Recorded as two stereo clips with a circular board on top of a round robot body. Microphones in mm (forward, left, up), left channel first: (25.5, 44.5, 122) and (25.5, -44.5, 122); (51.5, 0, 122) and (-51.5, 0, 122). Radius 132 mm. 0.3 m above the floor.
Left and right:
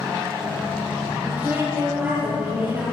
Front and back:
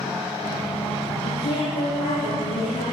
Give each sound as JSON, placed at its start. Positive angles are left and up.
{"t": 1.2, "sound": "a woman speaking", "azimuth_deg": -20, "distance_m": 8.0}